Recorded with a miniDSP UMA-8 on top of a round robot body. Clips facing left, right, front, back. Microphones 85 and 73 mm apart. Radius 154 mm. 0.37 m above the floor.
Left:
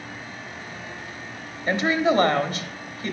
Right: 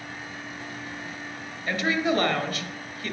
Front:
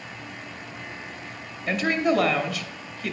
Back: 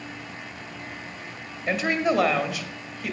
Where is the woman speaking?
100° left, 1.1 m.